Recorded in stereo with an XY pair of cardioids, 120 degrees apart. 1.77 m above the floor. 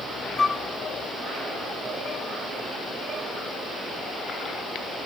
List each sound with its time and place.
0.4 s a flute: 20° left, 0.6 m